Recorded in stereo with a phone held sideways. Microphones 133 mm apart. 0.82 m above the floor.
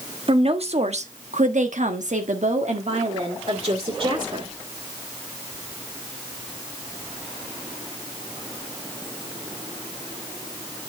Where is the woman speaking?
45° right (ahead or behind), 1.6 m; by 4.5 s 40° right (ahead or behind), 2.5 m.